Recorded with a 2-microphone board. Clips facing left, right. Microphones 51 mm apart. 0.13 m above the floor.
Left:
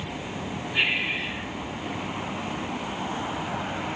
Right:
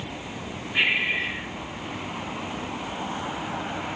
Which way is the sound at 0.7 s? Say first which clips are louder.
Right 3 dB; 15° right (ahead or behind).